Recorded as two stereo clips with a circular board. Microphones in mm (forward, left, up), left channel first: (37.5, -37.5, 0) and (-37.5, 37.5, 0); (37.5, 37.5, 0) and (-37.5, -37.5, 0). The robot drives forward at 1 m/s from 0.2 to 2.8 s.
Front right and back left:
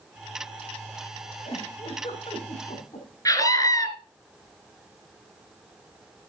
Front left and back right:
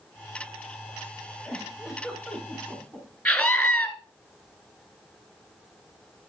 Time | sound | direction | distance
1.4 | a giggle | 45° right | 5 m
3.2 | a scream | 30° right | 1.7 m